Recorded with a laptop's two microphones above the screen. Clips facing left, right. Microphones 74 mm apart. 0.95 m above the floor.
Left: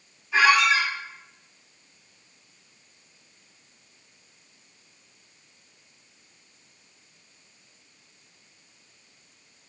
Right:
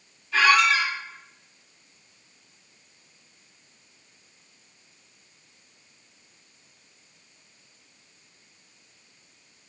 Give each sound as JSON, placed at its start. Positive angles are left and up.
{"t": 0.3, "sound": "a squeak", "side_deg": 20, "distance_m": 1.7}